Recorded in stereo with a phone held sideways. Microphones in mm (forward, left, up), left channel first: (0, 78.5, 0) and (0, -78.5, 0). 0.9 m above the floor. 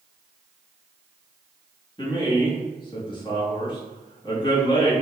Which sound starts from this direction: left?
A man speaking, at 2.0 s.